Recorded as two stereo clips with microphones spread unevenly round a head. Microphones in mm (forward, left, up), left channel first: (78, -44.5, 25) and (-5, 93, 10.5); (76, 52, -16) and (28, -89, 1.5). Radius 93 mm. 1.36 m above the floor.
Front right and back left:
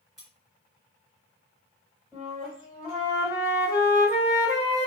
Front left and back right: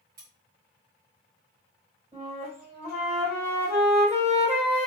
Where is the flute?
150° right, 1.4 m.